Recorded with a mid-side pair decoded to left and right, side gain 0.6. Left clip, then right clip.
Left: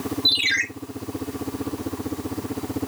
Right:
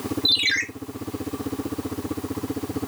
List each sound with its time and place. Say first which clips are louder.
0.2 s a ringtone: left 1 dB; 5° right, 3 m